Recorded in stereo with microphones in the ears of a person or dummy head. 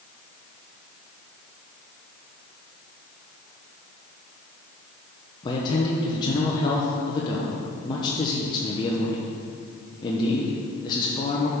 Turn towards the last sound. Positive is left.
turn(degrees=25)  # may be behind; listen again after turning